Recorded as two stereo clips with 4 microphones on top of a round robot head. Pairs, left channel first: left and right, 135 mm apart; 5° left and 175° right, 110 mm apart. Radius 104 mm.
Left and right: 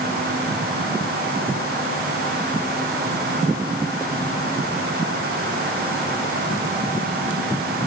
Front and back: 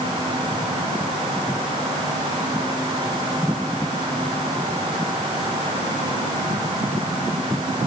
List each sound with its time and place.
Only background noise.